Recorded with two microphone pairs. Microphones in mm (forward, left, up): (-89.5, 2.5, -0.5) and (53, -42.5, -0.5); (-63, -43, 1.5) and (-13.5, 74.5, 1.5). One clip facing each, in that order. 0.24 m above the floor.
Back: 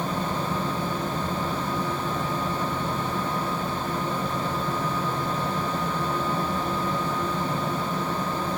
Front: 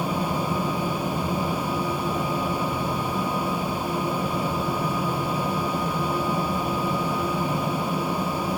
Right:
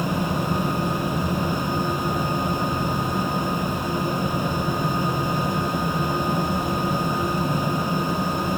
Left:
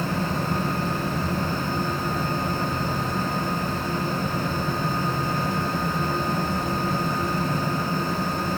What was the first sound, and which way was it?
Only background noise.